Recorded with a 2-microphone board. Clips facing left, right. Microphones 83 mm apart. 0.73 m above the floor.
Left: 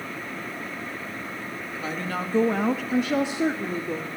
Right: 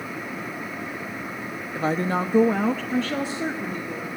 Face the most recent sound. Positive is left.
turn(degrees=30)  # may be behind; listen again after turning